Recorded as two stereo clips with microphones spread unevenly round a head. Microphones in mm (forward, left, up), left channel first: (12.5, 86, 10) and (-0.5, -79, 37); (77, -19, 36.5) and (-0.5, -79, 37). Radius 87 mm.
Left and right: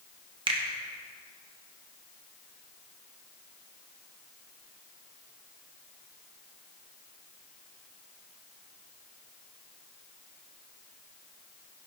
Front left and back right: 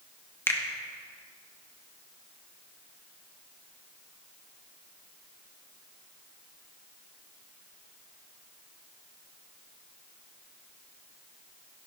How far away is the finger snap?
About 1.3 m.